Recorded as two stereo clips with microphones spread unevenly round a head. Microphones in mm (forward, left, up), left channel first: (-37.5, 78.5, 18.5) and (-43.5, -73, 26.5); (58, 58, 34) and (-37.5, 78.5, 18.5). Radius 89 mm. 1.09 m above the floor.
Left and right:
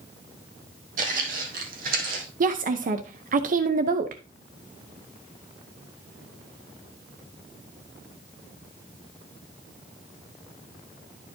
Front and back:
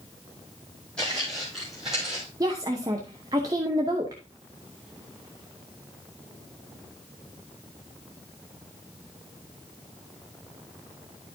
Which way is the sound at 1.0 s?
90° right.